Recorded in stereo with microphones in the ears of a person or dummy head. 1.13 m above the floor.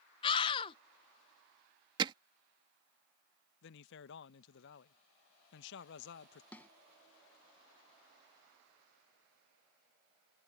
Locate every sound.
0.2 s a scream: 30° left (ahead or behind)
2.0 s hammering: 20° right (ahead or behind)
3.6 s a man speaking: 70° left (ahead or behind)
6.5 s a snare drum: 15° left (ahead or behind)